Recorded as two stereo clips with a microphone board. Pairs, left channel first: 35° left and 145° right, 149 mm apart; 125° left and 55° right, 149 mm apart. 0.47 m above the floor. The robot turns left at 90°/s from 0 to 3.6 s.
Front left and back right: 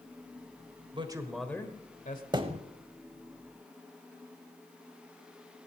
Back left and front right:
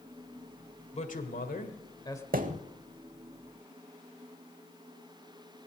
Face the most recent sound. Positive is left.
turn(degrees=165)